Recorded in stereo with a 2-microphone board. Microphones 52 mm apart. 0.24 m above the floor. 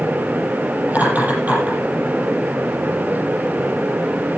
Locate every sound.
0.9 s laughter: 30° right (ahead or behind), 6.5 m